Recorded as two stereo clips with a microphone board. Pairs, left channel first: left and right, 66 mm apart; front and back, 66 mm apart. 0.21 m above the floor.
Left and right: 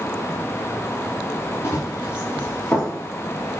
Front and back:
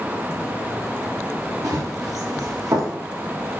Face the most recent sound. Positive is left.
turn(degrees=160)